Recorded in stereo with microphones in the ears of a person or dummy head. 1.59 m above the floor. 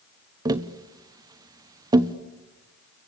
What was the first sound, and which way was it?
Tapping, 20° right (ahead or behind).